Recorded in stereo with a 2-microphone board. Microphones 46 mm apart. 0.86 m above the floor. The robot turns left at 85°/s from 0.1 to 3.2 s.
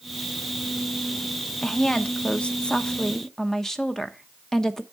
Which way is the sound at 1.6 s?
10° left (ahead or behind).